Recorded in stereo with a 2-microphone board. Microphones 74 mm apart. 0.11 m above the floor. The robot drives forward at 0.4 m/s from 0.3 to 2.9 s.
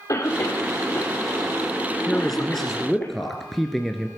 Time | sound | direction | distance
0.1 | a cough | 50° left (ahead or behind) | 4.5 m
2.1 | a man speaking | 5° left (ahead or behind) | 1.1 m